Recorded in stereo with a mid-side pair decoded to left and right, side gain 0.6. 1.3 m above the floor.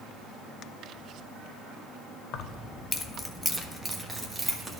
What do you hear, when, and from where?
2.3 s keys jangling: 60° left, 0.8 m; by 4.8 s 10° right, 1.9 m